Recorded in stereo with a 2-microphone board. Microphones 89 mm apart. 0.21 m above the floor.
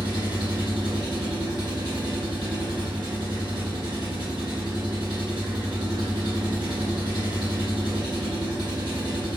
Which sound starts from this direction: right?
An engine running, at 0.0 s.